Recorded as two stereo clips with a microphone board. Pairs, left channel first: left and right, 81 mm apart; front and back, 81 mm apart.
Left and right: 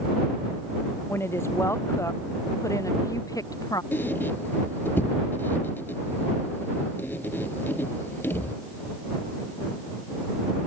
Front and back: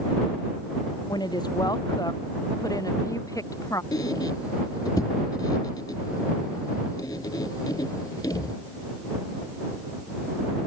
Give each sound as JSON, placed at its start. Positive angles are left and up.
{"t": 1.1, "sound": "a woman speaking", "azimuth_deg": 30}
{"t": 3.9, "sound": "a squeak", "azimuth_deg": 30}